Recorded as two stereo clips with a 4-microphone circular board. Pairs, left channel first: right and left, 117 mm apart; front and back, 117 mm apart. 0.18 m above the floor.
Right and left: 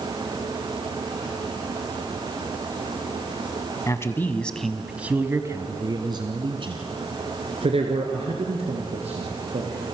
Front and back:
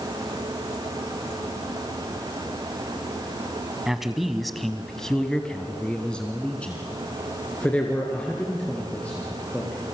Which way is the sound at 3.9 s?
100° right.